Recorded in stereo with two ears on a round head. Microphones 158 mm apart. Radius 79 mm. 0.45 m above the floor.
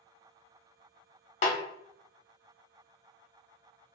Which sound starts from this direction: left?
A snare drum, at 1.4 s.